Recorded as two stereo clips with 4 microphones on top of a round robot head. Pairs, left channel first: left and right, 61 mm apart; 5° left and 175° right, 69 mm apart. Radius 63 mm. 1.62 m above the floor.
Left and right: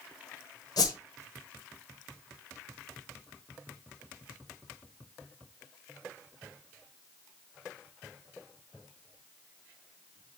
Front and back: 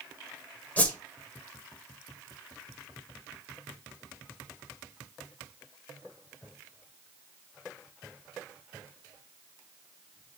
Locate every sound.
0.8 s a whoosh: 75° left, 1.2 m